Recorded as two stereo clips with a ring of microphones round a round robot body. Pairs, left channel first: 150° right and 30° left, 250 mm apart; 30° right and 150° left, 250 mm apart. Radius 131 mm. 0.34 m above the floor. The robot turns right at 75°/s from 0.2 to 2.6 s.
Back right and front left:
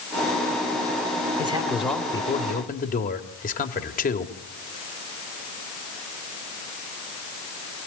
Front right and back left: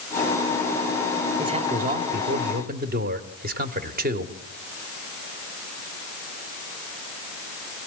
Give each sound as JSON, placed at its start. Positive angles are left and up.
{"t": 1.4, "sound": "a man speaking", "azimuth_deg": 85, "distance_m": 1.9}